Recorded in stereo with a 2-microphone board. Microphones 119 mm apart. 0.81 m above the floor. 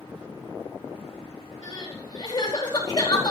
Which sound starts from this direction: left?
Crying, at 1.6 s.